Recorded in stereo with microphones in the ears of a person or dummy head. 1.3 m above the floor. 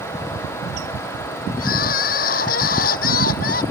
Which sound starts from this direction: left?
Crying, at 1.6 s.